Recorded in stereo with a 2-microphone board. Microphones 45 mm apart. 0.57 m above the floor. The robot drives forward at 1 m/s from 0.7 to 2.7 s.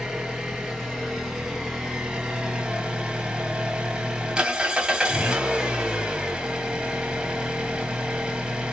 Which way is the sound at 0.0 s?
10° right (ahead or behind).